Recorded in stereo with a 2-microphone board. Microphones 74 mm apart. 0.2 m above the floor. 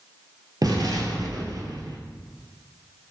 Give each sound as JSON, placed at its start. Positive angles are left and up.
{"t": 0.6, "sound": "an explosion", "side_deg": -55, "distance_m": 0.9}